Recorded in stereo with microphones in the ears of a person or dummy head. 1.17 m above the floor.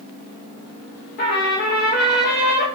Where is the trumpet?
30° left (ahead or behind), 0.5 m.